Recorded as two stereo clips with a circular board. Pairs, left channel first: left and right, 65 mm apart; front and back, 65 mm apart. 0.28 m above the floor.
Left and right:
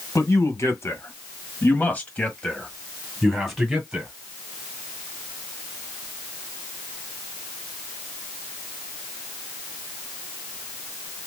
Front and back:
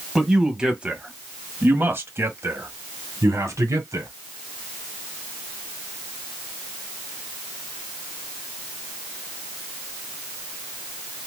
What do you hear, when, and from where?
0.1 s a man speaking: 100° left, 1.6 m; by 4.1 s 170° right, 1.9 m